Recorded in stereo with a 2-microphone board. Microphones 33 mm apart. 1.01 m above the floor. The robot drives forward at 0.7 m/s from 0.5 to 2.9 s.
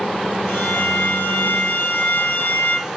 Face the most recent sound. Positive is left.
turn(degrees=55)  # may be behind; listen again after turning